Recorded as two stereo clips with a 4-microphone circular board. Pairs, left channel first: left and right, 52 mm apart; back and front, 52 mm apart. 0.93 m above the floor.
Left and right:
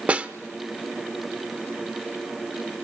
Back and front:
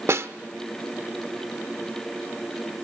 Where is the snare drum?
25° right, 1.1 m.